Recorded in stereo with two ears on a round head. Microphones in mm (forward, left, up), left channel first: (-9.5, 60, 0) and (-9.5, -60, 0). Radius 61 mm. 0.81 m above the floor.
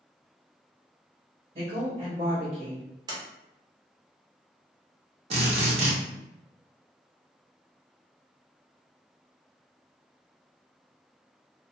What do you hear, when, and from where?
1.6 s a woman speaking: 40° right (ahead or behind), 1.2 m; by 2.9 s 15° left (ahead or behind), 0.8 m
3.1 s a sliding door: 30° right (ahead or behind), 0.8 m
5.3 s a drill: 45° right (ahead or behind), 0.8 m